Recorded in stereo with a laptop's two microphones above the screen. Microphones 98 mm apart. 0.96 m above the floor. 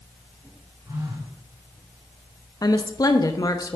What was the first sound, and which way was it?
A phone buzzing, 30° right (ahead or behind).